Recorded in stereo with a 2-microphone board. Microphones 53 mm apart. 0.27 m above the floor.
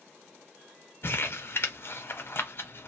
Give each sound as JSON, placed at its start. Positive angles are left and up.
{"t": 1.0, "sound": "crumpling", "side_deg": 50, "distance_m": 0.7}